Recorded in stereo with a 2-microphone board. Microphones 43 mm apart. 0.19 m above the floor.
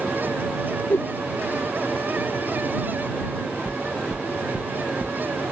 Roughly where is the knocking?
Right.